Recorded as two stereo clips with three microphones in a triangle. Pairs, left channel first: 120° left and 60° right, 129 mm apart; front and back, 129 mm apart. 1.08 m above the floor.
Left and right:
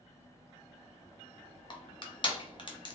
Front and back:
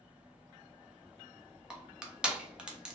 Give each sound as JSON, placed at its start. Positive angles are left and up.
{"t": 1.7, "sound": "crushing", "azimuth_deg": 100, "distance_m": 0.8}